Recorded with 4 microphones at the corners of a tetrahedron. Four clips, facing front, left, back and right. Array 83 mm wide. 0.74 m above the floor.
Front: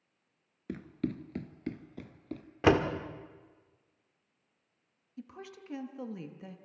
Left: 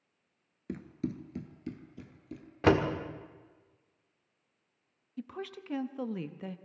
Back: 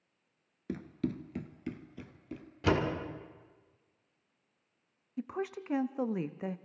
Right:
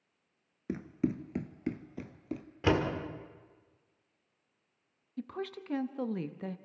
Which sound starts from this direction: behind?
A woman speaking, at 5.2 s.